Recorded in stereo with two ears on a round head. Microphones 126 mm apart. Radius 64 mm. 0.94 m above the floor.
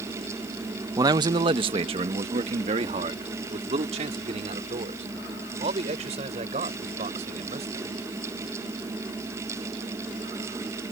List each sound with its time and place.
1.0 s a man speaking: 25° right (ahead or behind); by 8.0 s 50° right (ahead or behind)